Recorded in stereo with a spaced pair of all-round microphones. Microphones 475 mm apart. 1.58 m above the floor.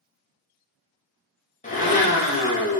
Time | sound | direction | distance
1.6 | a blender | 15° left (ahead or behind) | 0.7 m